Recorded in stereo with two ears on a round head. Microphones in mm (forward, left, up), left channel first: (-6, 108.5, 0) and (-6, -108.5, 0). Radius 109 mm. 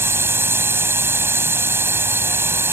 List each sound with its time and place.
0.0 s a drone: 10° right (ahead or behind)